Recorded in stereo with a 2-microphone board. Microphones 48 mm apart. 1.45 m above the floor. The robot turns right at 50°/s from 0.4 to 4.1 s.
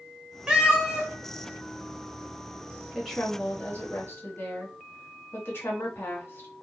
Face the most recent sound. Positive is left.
turn(degrees=55)